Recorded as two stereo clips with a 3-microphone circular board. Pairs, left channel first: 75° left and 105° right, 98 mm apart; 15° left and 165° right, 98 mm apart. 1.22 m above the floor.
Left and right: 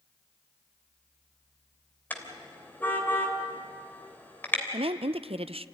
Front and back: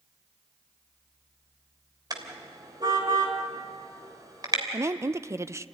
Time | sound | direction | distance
2.1 | a car horn | 145° left | 3 m
4.7 | a woman speaking | 105° right | 0.6 m